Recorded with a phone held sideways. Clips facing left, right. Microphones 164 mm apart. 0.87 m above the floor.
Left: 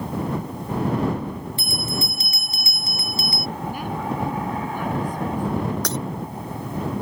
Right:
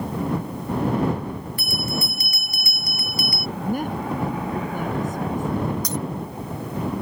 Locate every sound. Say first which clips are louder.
1.6 s a bell: right 2 dB; 25° left (ahead or behind)
3.6 s a woman speaking: right 3 dB; 45° right (ahead or behind)
5.8 s breaking glass: left 1 dB; 80° left